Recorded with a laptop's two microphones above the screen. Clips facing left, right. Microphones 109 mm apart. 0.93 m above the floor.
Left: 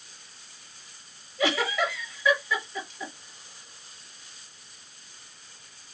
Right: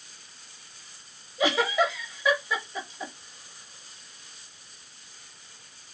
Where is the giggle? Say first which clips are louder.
Right 2 dB; 20° right (ahead or behind), 1.4 m.